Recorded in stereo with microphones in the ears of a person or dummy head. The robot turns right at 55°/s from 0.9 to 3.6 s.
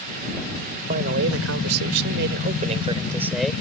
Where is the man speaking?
140° right; by 3.5 s 5° left.